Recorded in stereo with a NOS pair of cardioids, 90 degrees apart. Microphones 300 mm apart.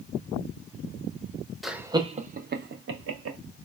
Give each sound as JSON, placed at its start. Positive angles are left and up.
{"t": 1.6, "sound": "laughter", "azimuth_deg": 0, "distance_m": 0.8}